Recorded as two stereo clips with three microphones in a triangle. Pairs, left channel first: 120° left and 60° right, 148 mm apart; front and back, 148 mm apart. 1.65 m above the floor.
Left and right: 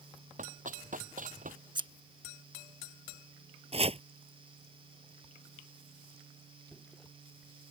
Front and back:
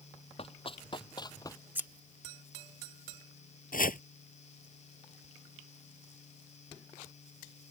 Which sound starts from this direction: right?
Scissors, at 1.8 s.